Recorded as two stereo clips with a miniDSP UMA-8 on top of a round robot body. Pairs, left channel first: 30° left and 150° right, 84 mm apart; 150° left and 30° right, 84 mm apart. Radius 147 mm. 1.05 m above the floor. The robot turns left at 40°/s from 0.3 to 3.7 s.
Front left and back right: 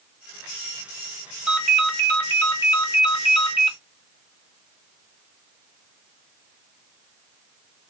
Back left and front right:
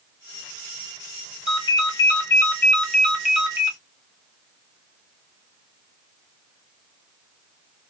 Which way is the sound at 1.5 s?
125° left.